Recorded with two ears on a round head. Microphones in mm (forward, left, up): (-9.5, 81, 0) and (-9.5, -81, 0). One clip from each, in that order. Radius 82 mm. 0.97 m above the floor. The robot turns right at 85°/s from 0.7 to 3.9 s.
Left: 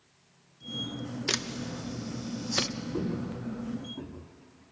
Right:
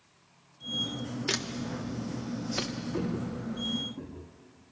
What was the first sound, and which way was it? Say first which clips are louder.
A camera shutter: left 1 dB; 5° left (ahead or behind).